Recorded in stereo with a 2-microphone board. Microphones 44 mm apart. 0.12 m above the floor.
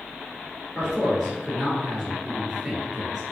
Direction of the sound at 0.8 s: 5° left (ahead or behind).